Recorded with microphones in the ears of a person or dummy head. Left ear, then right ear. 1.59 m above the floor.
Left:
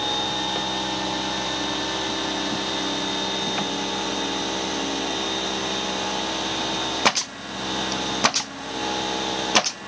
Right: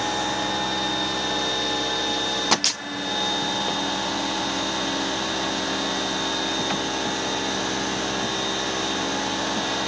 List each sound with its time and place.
Only background noise.